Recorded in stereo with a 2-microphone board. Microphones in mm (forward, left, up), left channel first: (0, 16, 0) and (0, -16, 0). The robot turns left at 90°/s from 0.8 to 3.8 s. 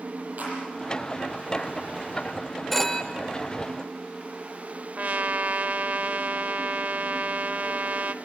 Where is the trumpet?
55° right (ahead or behind), 0.6 m.